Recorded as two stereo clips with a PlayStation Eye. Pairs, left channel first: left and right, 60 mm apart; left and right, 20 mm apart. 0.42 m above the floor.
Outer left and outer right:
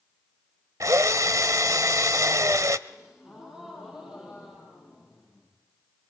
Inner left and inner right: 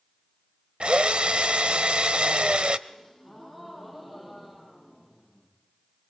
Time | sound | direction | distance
0.8 | a drill | 65° right (ahead or behind) | 0.8 m
2.9 | a gasp | 10° right (ahead or behind) | 7.5 m